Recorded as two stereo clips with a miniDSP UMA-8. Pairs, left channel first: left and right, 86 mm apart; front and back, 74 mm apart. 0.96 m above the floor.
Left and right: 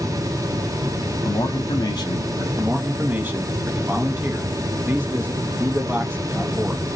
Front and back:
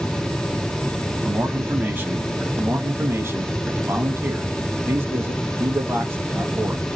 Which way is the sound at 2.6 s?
145° right.